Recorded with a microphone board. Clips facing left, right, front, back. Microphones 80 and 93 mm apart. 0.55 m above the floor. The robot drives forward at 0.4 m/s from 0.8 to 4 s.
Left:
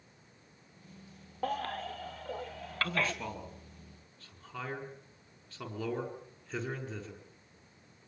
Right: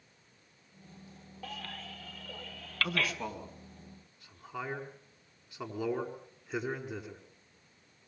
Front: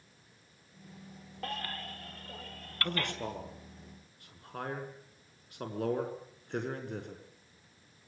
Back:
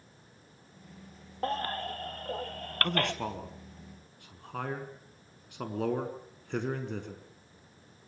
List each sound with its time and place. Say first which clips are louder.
1.4 s a baby crying: left 10 dB, back 8 dB; 125° left, 0.6 m; by 3.1 s 155° left, 1.1 m
2.8 s a man speaking: even, back 4 dB; 165° right, 5.5 m; by 7.2 s 170° right, 5.5 m